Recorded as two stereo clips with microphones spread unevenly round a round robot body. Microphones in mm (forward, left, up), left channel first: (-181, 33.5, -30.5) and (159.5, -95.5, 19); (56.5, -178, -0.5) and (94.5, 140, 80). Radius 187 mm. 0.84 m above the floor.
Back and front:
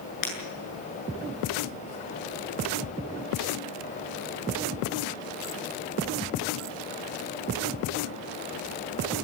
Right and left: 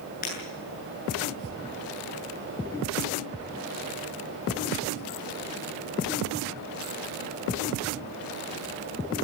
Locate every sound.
0.2 s breaking glass: 165° right, 8 m